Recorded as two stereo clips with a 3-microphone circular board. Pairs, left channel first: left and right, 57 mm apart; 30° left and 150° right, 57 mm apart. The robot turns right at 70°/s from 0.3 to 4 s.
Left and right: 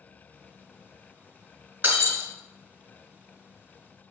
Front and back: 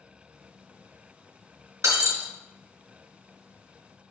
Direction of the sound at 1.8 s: 140° right.